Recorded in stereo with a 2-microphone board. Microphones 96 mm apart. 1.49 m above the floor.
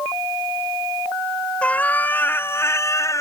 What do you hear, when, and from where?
1.6 s a cat meowing: 15° left (ahead or behind); by 3.2 s 35° left (ahead or behind)